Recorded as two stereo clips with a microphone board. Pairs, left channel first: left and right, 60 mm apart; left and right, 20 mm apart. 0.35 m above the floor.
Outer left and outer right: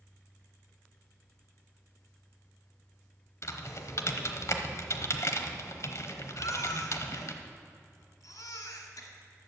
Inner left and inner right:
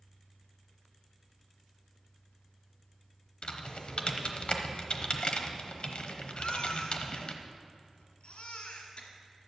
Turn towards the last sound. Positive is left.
turn(degrees=75)  # may be behind; listen again after turning